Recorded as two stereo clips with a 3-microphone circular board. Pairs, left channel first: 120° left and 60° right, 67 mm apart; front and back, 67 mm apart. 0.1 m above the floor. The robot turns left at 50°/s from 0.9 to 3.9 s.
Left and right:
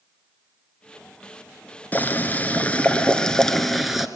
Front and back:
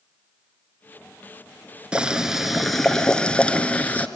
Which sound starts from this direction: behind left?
Boiling, at 1.9 s.